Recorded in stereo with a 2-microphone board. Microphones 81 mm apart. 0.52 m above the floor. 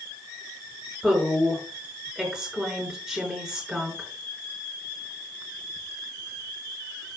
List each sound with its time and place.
1.0 s a woman speaking: 10° right (ahead or behind), 6 m